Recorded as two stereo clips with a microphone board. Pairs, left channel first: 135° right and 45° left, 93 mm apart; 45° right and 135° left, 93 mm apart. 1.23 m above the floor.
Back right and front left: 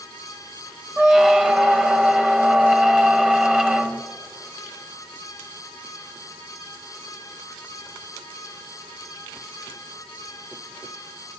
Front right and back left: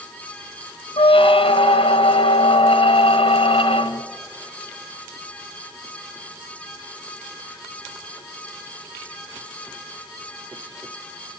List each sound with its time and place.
1.0 s a squeak: 35° right, 0.9 m